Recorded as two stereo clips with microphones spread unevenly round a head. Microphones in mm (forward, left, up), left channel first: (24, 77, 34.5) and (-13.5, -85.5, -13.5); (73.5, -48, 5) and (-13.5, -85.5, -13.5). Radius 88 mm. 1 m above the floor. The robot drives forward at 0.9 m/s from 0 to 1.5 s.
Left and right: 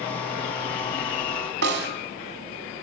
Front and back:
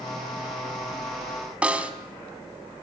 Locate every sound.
1.6 s a snare drum: 75° right, 3 m